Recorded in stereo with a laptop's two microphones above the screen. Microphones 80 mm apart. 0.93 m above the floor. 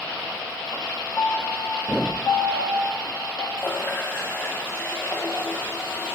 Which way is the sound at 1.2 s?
65° left (ahead or behind).